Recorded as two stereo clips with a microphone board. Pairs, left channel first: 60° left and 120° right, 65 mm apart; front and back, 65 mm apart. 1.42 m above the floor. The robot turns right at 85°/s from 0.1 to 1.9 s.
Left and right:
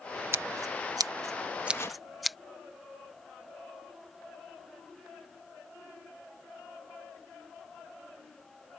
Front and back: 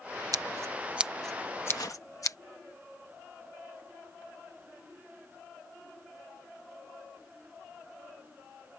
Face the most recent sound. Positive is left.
turn(degrees=20)